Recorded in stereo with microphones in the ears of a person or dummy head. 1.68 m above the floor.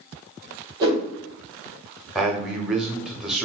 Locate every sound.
0.8 s a whoosh: 25° right (ahead or behind), 1.5 m
2.1 s a man speaking: centre (ahead or behind), 0.6 m